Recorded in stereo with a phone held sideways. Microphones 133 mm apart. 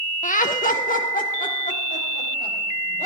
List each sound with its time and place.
0.2 s laughter: 75° left (ahead or behind), 0.8 m; by 3.1 s 80° left, 5.5 m